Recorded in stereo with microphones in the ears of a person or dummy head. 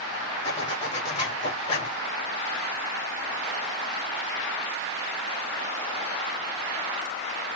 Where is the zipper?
40° left (ahead or behind), 1.4 m.